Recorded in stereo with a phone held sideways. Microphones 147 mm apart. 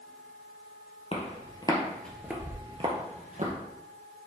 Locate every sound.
1.1 s footsteps: 45° left (ahead or behind), 2 m; by 3.5 s 60° right (ahead or behind), 2 m